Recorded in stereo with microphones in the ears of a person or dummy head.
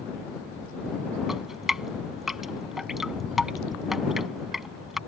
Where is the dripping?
Centre (ahead or behind).